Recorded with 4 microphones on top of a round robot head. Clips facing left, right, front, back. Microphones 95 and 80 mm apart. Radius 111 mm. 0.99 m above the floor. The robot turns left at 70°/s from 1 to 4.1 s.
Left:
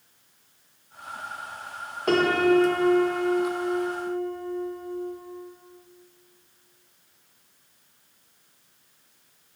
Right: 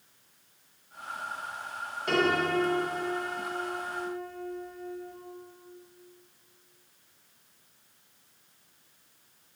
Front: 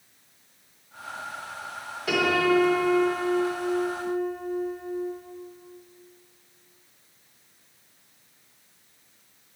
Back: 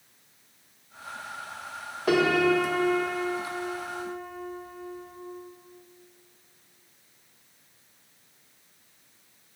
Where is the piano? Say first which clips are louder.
Left 6 dB, back 1 dB; 135° left, 1.2 m; by 5.1 s 10° right, 1.2 m.